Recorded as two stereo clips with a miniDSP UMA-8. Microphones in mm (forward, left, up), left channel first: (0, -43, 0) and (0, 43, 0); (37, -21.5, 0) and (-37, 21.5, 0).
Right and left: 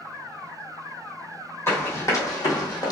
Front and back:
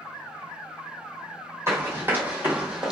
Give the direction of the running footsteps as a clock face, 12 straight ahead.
5 o'clock.